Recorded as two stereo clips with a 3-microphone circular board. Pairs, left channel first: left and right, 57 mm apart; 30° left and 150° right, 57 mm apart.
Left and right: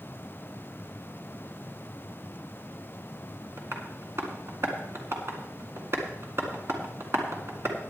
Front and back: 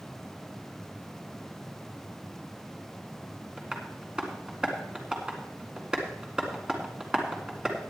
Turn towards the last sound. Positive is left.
turn(degrees=-80)